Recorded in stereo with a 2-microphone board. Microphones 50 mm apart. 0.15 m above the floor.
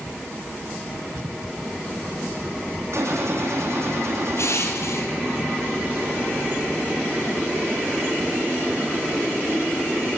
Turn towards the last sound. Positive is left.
turn(degrees=70)  # may be behind; listen again after turning